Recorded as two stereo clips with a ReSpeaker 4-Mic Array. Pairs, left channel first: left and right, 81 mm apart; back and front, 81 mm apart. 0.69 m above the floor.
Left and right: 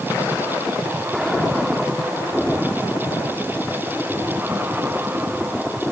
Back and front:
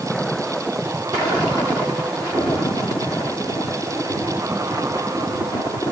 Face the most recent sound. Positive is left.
No sound to turn to.